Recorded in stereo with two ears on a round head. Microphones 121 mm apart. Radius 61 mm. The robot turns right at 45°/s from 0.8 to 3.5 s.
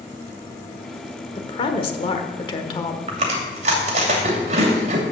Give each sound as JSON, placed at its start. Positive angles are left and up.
{"t": 1.4, "sound": "a woman speaking", "azimuth_deg": 60, "distance_m": 1.2}
{"t": 3.1, "sound": "chewing", "side_deg": -45, "distance_m": 2.5}